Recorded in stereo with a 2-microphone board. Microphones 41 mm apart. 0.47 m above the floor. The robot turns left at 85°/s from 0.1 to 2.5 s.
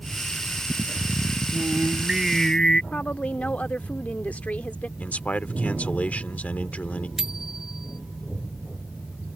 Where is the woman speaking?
35° left (ahead or behind).